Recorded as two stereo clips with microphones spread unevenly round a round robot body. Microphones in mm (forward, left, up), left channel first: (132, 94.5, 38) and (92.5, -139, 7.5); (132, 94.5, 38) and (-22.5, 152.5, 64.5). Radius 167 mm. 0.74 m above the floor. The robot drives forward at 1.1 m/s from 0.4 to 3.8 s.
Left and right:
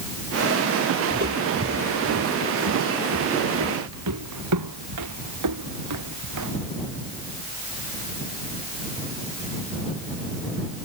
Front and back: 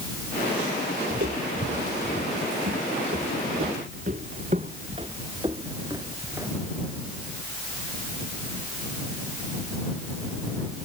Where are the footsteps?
170° right; by 6.5 s 120° right.